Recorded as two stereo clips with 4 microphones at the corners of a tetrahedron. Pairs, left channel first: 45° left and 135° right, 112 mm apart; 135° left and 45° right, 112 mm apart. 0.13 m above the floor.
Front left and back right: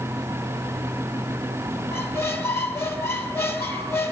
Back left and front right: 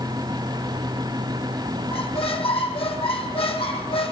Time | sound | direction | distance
1.9 | a squeak | 110° left | 1.7 m